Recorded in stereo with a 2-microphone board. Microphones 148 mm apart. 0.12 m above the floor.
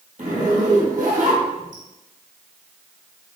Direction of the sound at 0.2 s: 70° right (ahead or behind).